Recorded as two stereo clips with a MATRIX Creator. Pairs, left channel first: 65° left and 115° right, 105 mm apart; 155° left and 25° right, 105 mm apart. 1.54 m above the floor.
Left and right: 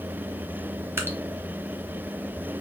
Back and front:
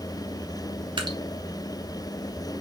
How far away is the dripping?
About 1.0 m.